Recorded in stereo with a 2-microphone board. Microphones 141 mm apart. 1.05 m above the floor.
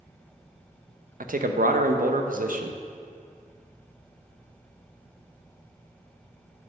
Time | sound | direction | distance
1.2 | a man speaking | 75° right (ahead or behind) | 0.7 m